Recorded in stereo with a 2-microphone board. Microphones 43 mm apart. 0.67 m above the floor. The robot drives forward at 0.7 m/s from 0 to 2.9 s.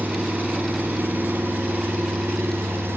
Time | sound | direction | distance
0.0 | an engine running | 45° right (ahead or behind) | 6 m